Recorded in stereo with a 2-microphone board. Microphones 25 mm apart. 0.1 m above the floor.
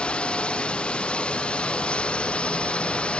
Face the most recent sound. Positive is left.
turn(degrees=50)  # may be behind; listen again after turning